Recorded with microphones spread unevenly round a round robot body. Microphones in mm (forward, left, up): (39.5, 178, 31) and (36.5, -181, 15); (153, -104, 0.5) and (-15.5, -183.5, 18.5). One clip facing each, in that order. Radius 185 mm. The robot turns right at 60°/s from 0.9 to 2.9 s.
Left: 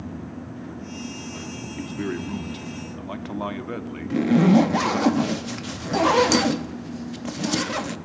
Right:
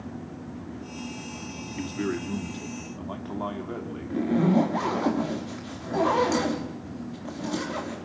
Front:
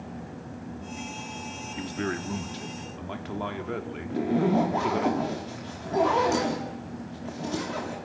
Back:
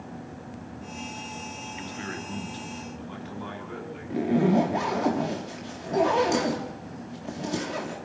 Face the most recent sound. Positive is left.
turn(degrees=125)